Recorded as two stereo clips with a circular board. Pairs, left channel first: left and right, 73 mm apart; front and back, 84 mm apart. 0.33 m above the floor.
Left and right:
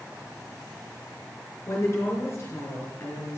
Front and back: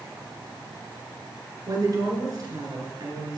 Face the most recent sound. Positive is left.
turn(degrees=145)